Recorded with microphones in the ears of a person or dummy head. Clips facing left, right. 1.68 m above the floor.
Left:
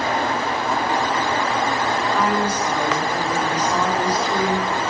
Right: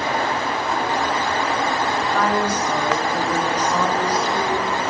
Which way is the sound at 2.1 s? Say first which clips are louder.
Right 2 dB; 10° left (ahead or behind).